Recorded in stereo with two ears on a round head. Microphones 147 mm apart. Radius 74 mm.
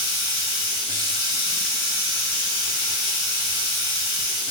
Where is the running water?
80° left, 2.5 m.